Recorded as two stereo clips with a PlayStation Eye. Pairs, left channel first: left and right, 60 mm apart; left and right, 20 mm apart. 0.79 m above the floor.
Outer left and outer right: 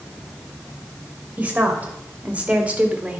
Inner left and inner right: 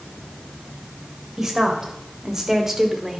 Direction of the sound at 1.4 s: 25° right (ahead or behind).